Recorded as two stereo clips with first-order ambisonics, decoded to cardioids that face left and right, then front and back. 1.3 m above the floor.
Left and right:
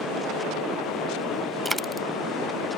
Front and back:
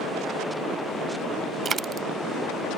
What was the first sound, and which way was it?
A dropped coin, 165° right.